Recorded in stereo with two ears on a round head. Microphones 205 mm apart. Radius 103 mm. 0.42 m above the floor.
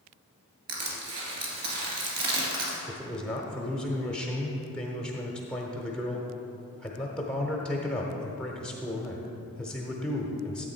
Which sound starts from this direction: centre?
A man speaking, at 2.9 s.